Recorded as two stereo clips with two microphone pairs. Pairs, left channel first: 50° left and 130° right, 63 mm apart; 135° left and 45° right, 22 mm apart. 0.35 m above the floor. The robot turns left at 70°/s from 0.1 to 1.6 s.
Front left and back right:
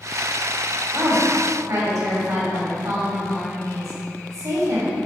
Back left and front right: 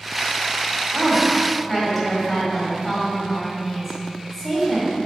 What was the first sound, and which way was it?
A woman speaking, 90° right.